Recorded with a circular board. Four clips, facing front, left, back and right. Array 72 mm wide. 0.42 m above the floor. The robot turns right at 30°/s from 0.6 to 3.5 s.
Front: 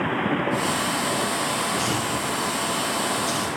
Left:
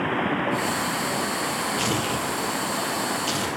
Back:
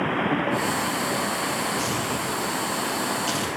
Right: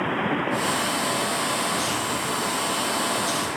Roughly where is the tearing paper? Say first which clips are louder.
Left 1 dB, front 1 dB; left.